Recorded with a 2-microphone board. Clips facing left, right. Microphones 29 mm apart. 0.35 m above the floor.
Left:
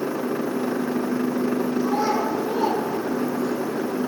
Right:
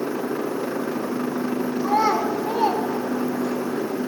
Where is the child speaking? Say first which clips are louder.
Right 6 dB; 65° right (ahead or behind), 1.6 m; by 3.6 s 15° left (ahead or behind), 1.1 m.